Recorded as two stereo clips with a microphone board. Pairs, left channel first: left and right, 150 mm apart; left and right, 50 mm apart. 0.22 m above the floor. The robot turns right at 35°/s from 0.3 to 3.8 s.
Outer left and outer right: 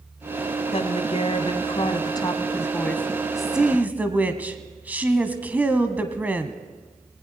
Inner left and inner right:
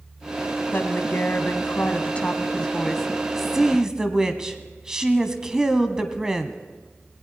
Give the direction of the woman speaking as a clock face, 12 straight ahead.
9 o'clock.